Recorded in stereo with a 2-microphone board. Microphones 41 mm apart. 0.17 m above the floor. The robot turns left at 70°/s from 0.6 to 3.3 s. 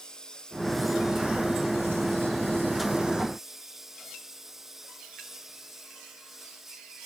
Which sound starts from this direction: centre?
A lawn mower, at 0.0 s.